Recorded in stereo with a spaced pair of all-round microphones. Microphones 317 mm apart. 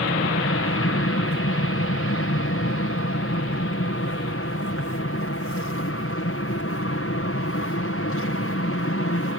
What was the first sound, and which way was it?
An aircraft, 45° left (ahead or behind).